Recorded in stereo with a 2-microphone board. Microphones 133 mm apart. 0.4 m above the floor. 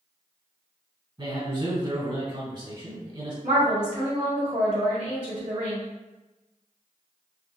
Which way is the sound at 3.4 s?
45° right (ahead or behind).